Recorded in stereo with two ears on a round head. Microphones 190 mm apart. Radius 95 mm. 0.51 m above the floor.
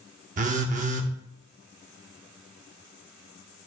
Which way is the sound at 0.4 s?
35° right (ahead or behind).